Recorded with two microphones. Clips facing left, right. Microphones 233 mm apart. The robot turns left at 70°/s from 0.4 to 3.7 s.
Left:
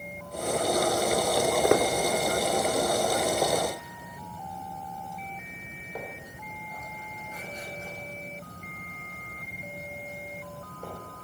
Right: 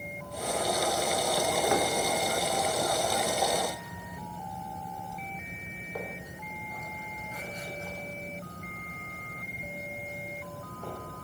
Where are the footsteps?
75° left (ahead or behind), 0.9 m; by 11.0 s 35° left (ahead or behind), 4.5 m.